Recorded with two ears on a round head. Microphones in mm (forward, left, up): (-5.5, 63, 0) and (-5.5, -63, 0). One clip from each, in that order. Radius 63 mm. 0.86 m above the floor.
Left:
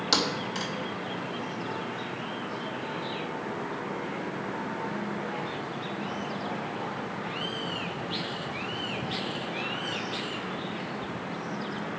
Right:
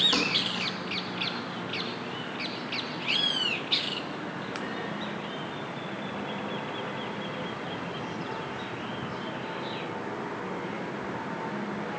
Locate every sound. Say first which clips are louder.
0.1 s a thud: right 1 dB; 60° left (ahead or behind), 2 m